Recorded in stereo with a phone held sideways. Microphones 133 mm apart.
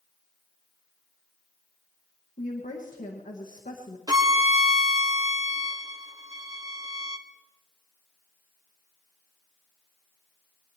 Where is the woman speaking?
85° left, 1.4 m.